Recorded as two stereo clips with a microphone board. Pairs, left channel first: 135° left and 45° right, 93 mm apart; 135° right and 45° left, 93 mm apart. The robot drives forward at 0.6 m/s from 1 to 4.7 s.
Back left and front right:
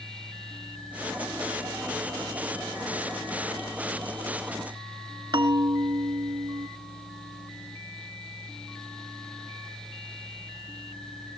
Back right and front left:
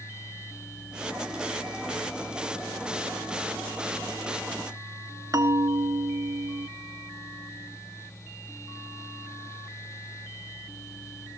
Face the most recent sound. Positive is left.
turn(degrees=-10)